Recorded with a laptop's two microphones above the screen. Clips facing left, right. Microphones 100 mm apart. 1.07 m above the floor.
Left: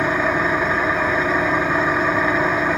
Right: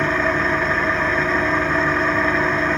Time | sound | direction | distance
0.0 | an engine running | 10° left (ahead or behind) | 1.3 m